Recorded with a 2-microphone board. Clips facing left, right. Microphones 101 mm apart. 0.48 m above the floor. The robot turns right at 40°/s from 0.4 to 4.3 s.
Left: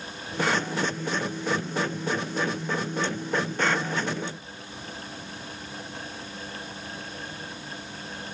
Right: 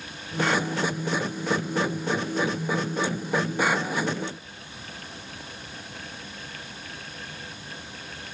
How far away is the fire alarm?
No fire alarm in this recording.